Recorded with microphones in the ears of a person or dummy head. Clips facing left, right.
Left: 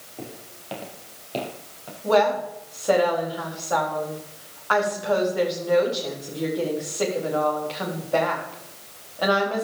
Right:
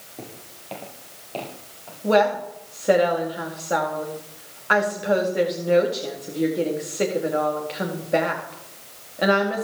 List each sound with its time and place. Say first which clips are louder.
0.2 s footsteps: left 2 dB; 5° right (ahead or behind), 3.5 m; by 1.9 s 30° left (ahead or behind), 4.5 m
2.0 s a woman speaking: right 1 dB; 25° right (ahead or behind), 4 m